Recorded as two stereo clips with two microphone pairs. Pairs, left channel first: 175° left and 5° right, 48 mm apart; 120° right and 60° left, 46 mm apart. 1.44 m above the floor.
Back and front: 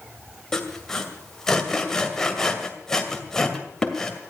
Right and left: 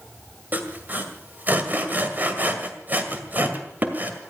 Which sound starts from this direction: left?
Sawing, at 0.5 s.